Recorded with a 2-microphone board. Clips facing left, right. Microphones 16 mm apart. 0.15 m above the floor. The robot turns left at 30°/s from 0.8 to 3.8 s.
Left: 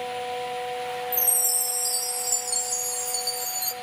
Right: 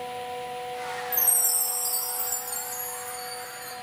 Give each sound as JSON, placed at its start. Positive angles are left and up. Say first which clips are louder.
{"t": 1.1, "sound": "a chime", "louder": "right 1 dB", "azimuth_deg": -175, "distance_m": 1.6}